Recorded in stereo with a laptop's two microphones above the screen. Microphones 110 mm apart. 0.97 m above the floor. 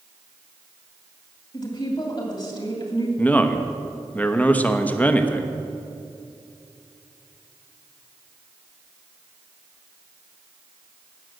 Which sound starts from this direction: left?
A woman speaking, at 1.5 s.